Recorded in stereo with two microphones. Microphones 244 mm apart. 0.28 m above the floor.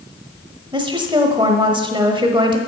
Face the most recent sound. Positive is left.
turn(degrees=-20)  # may be behind; listen again after turning